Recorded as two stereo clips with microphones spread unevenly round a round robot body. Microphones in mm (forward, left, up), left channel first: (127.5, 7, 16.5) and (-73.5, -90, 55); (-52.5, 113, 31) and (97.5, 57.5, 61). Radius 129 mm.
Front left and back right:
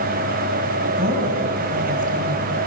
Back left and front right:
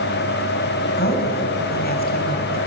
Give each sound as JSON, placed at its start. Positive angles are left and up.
{"t": 1.0, "sound": "a woman speaking", "azimuth_deg": 145, "distance_m": 4.5}